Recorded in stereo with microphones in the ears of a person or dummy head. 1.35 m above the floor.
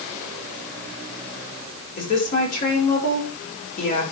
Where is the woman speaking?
40° left (ahead or behind), 5.5 m.